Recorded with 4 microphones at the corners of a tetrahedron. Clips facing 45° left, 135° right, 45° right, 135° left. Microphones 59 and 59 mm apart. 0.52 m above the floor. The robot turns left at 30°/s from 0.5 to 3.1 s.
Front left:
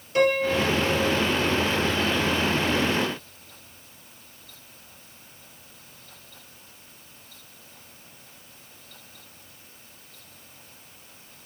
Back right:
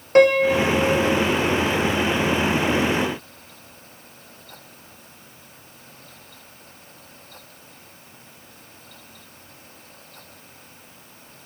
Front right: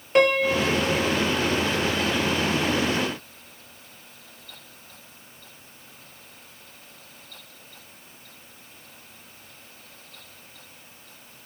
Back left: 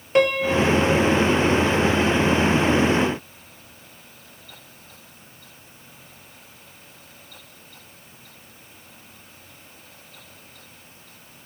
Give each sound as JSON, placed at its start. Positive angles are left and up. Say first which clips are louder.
{"t": 0.1, "sound": "a piano", "louder": "back right 7 dB, back left 1 dB", "azimuth_deg": -135, "distance_m": 1.1}